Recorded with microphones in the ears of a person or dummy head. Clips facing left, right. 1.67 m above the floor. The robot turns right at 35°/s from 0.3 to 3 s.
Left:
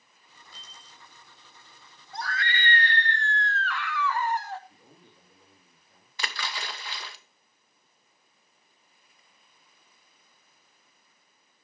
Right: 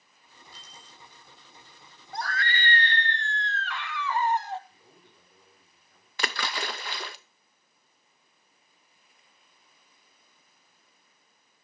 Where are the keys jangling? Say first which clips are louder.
Right 1 dB; 80° left, 6 m.